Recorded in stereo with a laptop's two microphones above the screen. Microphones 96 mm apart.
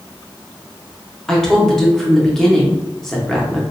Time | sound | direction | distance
1.3 | a woman speaking | 5° left (ahead or behind) | 0.8 m